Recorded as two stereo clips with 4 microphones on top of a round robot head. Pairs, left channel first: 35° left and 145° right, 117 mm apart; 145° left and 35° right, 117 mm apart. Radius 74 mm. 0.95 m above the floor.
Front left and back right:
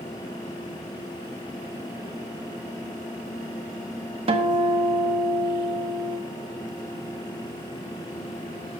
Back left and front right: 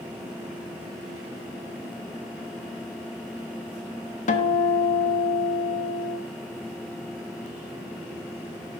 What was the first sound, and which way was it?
A guitar, 170° left.